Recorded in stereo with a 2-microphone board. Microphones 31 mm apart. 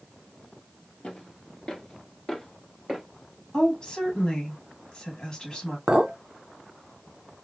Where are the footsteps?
35° left (ahead or behind), 1.6 m; by 3.0 s 10° right (ahead or behind), 1.6 m.